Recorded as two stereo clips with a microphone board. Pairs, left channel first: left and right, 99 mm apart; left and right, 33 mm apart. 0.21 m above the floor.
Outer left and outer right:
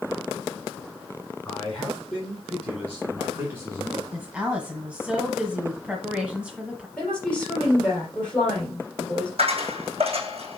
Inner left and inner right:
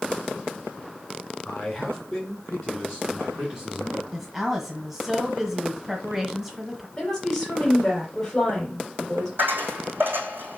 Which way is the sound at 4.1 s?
10° right (ahead or behind).